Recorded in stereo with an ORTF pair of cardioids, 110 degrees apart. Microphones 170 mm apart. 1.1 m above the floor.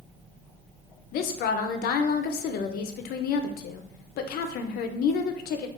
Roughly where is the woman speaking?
Ahead left.